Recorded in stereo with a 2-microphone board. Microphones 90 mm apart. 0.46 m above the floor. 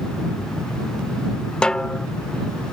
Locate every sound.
1.6 s a snare drum: 10° left (ahead or behind)